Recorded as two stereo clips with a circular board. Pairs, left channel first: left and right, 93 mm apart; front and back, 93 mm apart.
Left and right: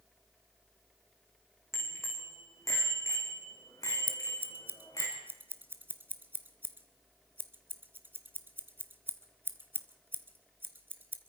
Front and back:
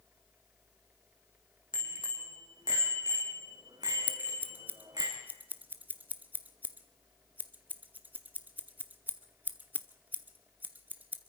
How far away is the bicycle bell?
About 4 m.